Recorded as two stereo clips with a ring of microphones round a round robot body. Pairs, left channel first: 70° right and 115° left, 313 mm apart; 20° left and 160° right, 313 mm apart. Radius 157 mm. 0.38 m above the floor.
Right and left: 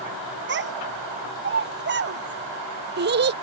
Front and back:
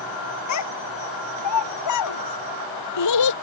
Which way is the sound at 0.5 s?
55° left.